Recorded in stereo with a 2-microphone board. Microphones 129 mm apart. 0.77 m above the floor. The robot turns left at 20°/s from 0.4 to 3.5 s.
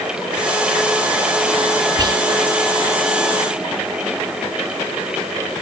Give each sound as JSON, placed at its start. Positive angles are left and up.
{"t": 2.0, "sound": "whispering", "side_deg": -30, "distance_m": 1.0}